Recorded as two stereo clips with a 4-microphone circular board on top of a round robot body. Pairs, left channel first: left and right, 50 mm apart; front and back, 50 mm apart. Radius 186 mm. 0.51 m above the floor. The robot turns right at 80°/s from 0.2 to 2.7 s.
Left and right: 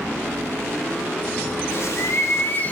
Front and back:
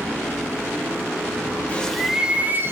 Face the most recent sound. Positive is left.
turn(degrees=145)